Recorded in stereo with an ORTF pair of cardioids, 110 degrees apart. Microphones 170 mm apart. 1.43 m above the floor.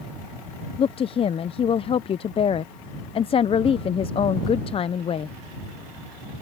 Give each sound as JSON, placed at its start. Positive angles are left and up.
{"t": 0.8, "sound": "a woman speaking", "azimuth_deg": 35}